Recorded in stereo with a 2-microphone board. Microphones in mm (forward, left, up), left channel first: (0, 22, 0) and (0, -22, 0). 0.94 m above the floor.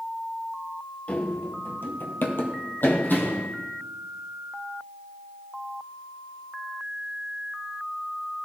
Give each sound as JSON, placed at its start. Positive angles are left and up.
{"t": 1.1, "sound": "running footsteps", "side_deg": 30, "distance_m": 1.3}